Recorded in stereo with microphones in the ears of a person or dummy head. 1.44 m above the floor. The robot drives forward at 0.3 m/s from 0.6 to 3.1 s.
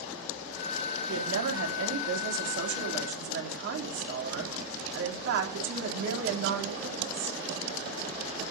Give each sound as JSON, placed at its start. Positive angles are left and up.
{"t": 1.1, "sound": "a woman speaking", "side_deg": -80, "distance_m": 3.0}